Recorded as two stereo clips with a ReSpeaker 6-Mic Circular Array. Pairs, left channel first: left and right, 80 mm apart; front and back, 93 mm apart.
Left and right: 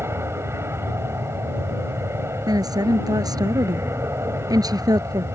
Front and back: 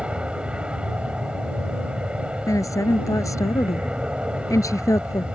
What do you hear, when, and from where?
0.0 s an aircraft: 110° right
2.5 s a woman speaking: 55° right